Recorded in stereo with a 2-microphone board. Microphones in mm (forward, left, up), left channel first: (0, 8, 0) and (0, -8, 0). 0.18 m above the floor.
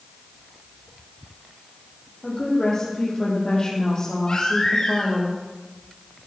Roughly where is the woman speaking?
Left.